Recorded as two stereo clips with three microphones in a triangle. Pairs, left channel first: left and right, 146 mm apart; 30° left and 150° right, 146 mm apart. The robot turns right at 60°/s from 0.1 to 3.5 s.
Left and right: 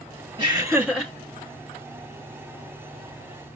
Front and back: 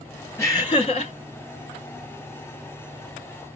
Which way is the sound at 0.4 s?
40° right.